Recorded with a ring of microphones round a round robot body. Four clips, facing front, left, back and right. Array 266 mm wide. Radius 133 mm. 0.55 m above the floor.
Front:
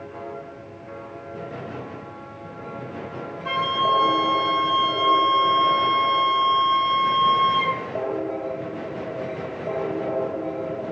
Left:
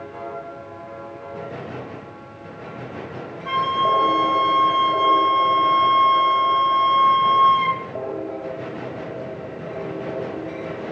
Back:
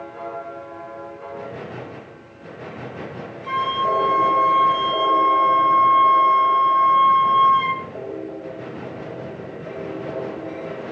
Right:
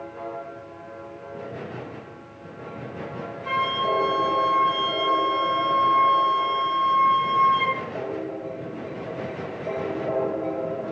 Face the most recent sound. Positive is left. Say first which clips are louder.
# left 5 dB, back 1 dB
turn(degrees=0)